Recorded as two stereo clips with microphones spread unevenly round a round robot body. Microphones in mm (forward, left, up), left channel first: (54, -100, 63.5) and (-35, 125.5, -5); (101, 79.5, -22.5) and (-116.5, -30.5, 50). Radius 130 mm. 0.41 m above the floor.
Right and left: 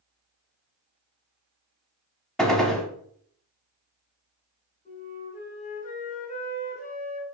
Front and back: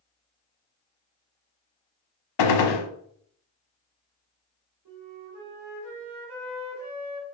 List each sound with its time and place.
2.4 s a gunshot: 20° left, 0.6 m
4.8 s a flute: 135° right, 1.4 m